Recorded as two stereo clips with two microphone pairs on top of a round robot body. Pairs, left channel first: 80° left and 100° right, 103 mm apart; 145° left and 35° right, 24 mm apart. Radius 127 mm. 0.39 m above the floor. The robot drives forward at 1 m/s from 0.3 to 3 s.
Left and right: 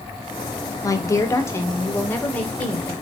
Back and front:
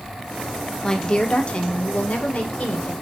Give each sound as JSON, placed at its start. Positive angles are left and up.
{"t": 0.8, "sound": "a woman speaking", "azimuth_deg": 90, "distance_m": 1.7}